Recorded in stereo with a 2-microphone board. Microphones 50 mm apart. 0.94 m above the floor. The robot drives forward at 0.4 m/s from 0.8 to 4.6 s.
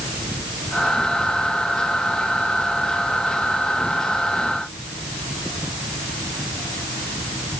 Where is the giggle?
No giggle in this recording.